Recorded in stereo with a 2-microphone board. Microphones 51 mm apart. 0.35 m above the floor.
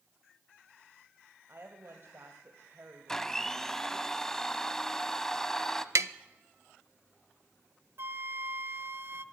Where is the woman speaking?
50° right (ahead or behind), 1.9 m.